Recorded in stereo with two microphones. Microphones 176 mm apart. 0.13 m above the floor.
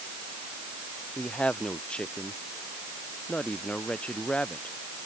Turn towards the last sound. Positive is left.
turn(degrees=5)  # may be behind; listen again after turning